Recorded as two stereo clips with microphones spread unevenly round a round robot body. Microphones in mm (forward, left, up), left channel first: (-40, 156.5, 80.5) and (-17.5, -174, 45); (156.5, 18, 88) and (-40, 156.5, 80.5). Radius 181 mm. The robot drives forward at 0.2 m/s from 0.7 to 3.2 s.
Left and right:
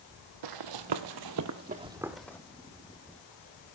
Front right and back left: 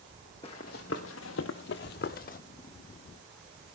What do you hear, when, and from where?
0.4 s running footsteps: 105° right, 0.8 m; by 2.4 s 15° left, 0.7 m